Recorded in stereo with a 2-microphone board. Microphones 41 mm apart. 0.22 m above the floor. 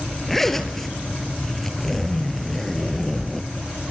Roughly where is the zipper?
Centre.